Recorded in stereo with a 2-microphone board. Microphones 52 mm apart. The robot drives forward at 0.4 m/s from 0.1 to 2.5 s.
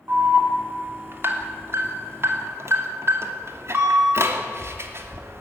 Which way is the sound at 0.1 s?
45° right (ahead or behind).